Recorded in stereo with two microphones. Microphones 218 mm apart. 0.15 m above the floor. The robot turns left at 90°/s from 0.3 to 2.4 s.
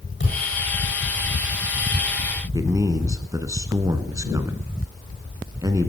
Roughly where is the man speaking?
Centre.